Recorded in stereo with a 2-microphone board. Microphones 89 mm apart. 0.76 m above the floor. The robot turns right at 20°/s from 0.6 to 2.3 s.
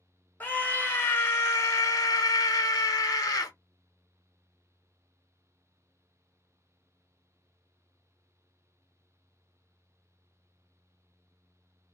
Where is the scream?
25° left, 0.8 m; by 3.5 s 60° left, 0.8 m.